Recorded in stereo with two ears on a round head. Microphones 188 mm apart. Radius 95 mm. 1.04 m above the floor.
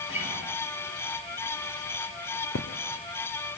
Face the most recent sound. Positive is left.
turn(degrees=60)  # may be behind; listen again after turning